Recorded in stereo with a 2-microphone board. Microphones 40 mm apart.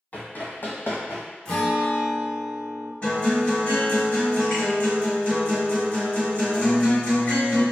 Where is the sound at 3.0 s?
30° left (ahead or behind), 1.6 m.